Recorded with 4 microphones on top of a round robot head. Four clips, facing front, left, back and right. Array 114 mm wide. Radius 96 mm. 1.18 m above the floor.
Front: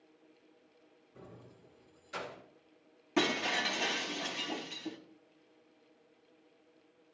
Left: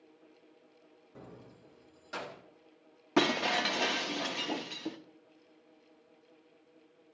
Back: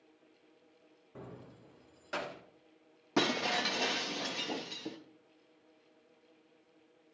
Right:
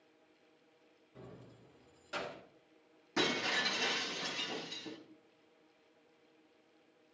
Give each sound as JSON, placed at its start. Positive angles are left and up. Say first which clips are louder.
{"t": 1.1, "sound": "keys jangling", "louder": "left 2 dB, back 4 dB", "azimuth_deg": 155, "distance_m": 0.6}
{"t": 3.2, "sound": "breaking glass", "louder": "left 7 dB, even", "azimuth_deg": 110, "distance_m": 0.6}